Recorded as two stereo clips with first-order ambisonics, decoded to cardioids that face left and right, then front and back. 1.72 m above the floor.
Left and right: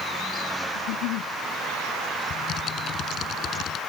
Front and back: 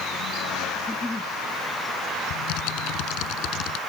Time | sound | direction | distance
0.8 | a giggle | 80° left | ?
2.3 | typing on a keyboard | 30° left | ?